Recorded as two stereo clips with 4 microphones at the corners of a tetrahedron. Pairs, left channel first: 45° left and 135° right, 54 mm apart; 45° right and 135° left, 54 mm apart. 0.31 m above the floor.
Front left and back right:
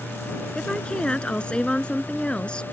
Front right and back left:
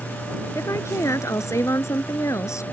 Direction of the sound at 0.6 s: 25° right.